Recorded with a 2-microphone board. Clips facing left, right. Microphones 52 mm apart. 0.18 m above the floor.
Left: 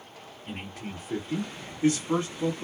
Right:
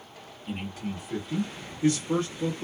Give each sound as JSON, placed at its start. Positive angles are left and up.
{"t": 0.5, "sound": "a man speaking", "side_deg": 55, "distance_m": 1.8}